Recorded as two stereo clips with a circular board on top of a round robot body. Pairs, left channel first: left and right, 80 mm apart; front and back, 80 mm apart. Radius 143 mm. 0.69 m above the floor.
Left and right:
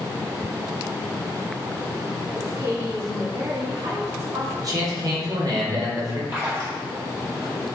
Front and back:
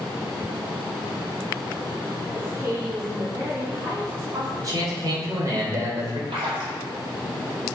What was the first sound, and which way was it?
A woman speaking, 130° right.